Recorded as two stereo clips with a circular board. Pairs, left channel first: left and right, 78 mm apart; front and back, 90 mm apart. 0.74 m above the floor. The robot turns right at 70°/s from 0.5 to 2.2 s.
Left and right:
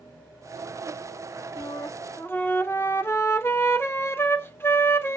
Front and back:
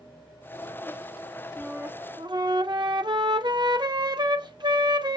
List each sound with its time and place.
1.6 s a flute: 100° left, 0.6 m; by 5.2 s 145° left, 0.6 m